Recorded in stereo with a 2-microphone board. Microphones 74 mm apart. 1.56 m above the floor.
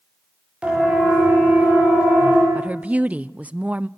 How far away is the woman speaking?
About 0.5 m.